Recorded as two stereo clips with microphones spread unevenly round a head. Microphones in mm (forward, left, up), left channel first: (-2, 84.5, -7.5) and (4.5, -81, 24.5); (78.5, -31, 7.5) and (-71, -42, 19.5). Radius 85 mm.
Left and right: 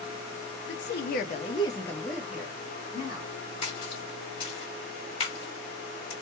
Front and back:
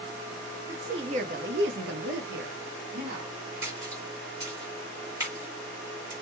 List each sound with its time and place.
0.7 s a woman speaking: 105° left, 0.6 m; by 3.4 s 155° right, 1.2 m
3.6 s a splash: 140° left, 1.6 m